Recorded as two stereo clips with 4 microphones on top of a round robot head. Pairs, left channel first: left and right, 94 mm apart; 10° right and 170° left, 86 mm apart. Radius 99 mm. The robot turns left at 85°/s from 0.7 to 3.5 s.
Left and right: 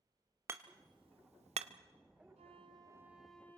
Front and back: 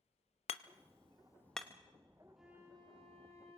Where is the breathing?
No breathing in this recording.